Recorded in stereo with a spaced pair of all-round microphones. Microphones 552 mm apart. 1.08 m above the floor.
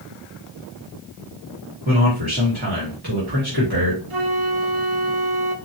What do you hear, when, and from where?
1.9 s a man speaking: 45° right (ahead or behind), 2 m
4.1 s a flute: 65° right (ahead or behind), 1.1 m